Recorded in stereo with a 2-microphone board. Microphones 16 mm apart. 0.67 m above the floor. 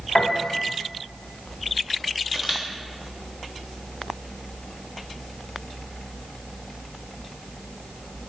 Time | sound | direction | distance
0.1 | a piano | 50° left (ahead or behind) | 0.9 m
2.3 | a camera shutter | 10° right (ahead or behind) | 1.2 m